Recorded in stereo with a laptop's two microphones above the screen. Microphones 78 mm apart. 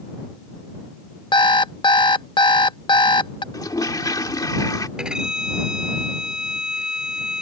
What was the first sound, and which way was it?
An alarm clock, 90° left.